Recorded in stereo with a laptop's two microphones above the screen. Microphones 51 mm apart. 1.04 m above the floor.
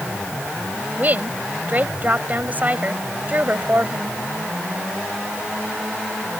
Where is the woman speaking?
35° right (ahead or behind).